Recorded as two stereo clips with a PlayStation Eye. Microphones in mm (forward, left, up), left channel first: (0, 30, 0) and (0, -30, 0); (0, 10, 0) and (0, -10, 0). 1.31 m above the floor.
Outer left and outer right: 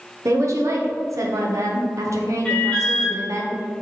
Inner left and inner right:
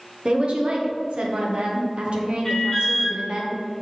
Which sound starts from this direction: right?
A woman speaking, at 0.2 s.